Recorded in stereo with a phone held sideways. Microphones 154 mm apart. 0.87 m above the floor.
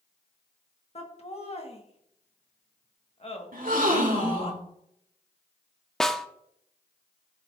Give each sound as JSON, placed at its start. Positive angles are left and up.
{"t": 0.9, "sound": "laughter", "side_deg": 40, "distance_m": 1.4}
{"t": 3.5, "sound": "a gasp", "side_deg": -65, "distance_m": 1.6}
{"t": 6.0, "sound": "a snare drum", "side_deg": 5, "distance_m": 0.5}